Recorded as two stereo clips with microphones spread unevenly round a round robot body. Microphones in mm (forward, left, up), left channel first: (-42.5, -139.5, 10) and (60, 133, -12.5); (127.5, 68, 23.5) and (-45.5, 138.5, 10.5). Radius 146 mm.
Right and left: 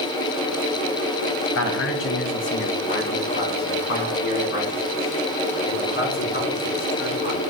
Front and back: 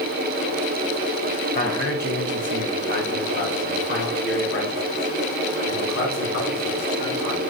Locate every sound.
1.6 s a man speaking: 70° right, 1.2 m; by 7.4 s 45° right, 4 m